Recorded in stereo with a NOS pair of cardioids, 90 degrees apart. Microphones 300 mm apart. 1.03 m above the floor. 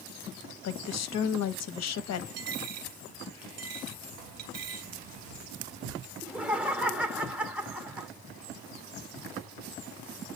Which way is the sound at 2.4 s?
60° right.